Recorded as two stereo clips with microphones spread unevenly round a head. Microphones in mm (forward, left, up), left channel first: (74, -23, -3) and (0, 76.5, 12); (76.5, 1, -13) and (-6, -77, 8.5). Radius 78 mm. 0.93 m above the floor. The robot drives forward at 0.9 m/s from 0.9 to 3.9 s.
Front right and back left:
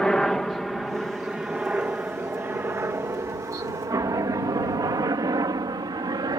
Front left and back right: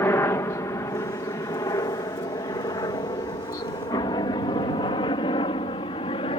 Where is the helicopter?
20° left; by 6.4 s 80° left.